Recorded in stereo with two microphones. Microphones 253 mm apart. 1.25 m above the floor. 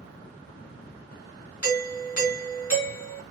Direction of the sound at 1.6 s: 65° left (ahead or behind).